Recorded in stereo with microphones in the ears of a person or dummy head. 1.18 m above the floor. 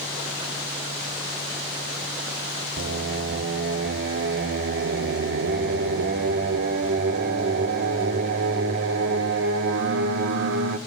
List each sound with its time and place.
2.8 s singing: 65° right (ahead or behind), 0.9 m